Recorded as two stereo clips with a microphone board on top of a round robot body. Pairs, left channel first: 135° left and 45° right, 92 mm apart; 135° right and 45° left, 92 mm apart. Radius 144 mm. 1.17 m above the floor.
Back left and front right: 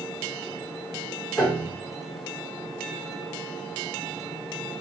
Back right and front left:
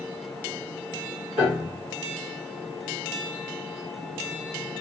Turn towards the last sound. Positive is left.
turn(degrees=70)